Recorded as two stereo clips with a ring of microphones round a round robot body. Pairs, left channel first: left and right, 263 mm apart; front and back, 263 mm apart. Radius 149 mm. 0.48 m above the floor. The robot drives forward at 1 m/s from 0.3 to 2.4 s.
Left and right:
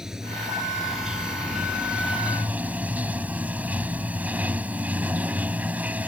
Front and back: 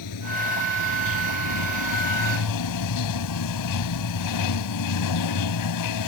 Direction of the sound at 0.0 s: Straight ahead.